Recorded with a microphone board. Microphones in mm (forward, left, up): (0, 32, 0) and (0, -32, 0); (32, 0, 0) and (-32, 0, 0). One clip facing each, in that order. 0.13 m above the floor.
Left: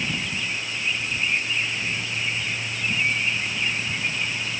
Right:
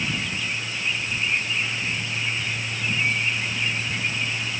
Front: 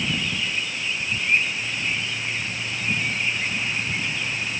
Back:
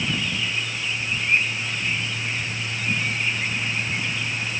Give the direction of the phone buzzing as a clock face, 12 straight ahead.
I don't hear a phone buzzing.